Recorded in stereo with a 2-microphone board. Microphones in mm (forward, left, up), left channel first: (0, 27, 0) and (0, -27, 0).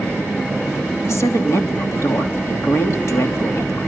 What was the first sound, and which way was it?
A woman speaking, 60° left (ahead or behind).